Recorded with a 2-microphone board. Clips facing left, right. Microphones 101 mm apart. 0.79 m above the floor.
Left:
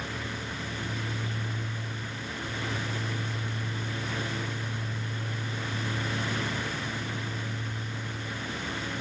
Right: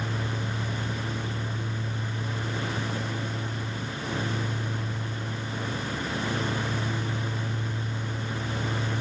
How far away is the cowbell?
I don't hear a cowbell.